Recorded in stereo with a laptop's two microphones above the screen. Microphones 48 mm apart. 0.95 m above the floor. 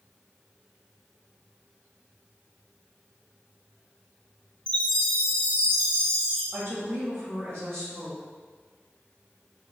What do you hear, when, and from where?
4.7 s a chime: 25° left (ahead or behind), 1.0 m
6.5 s a woman speaking: 75° right (ahead or behind), 1.1 m